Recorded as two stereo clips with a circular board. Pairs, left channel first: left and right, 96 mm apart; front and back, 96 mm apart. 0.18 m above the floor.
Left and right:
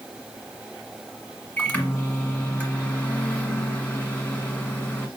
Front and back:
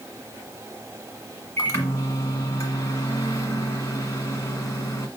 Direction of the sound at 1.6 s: 30° left.